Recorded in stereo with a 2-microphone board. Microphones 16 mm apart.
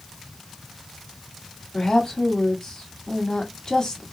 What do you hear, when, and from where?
1.7 s a woman speaking: 35° left (ahead or behind), 1.4 m